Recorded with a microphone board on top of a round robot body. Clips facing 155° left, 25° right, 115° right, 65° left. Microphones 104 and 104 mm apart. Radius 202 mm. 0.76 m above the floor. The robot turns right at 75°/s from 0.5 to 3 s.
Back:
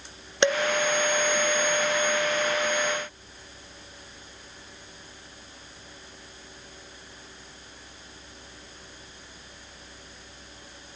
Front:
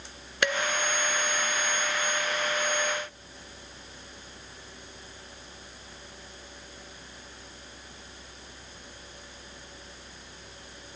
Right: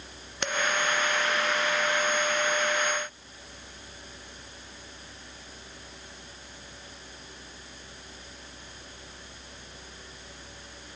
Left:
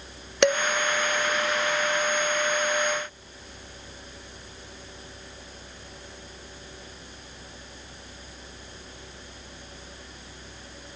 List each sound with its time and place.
0.4 s dishes clattering: 90° left, 0.5 m; by 0.6 s 100° left, 0.5 m